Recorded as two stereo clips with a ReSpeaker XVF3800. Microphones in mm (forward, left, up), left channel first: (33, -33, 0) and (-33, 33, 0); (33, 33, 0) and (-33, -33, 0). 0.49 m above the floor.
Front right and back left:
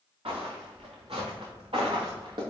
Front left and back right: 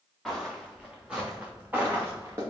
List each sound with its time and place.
0.2 s footsteps: 135° left, 2.5 m; by 2.4 s 165° left, 3 m